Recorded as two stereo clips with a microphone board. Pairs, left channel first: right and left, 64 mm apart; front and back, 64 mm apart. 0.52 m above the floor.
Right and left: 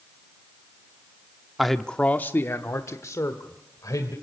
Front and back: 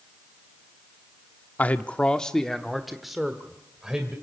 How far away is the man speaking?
About 0.9 m.